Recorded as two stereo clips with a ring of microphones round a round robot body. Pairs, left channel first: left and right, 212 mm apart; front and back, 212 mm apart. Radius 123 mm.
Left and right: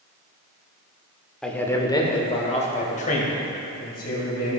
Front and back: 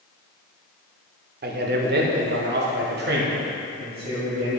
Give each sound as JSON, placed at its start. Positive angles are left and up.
{"t": 1.4, "sound": "a man speaking", "azimuth_deg": 175, "distance_m": 1.2}